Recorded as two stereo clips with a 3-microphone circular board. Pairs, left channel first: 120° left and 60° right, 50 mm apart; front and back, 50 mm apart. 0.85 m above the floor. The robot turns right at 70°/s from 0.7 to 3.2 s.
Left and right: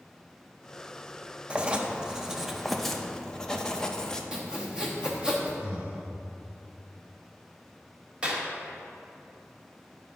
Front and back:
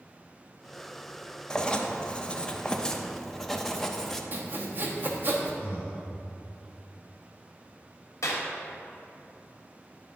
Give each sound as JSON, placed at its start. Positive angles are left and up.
{"t": 1.5, "sound": "writing", "azimuth_deg": -50, "distance_m": 0.6}
{"t": 4.3, "sound": "sawing", "azimuth_deg": -135, "distance_m": 1.1}
{"t": 5.6, "sound": "breathing", "azimuth_deg": -125, "distance_m": 1.2}
{"t": 8.2, "sound": "a clap", "azimuth_deg": 5, "distance_m": 1.3}